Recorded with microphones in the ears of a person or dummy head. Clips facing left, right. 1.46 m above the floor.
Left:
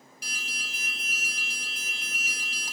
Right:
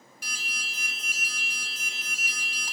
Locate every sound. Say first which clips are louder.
0.2 s an alarm: even; 35° left (ahead or behind), 2.5 m